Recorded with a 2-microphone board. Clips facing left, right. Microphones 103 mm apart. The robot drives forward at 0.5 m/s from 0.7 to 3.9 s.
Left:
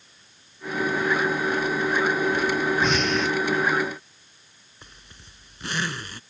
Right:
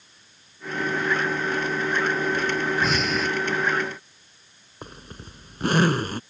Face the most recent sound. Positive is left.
turn(degrees=-50)  # may be behind; listen again after turning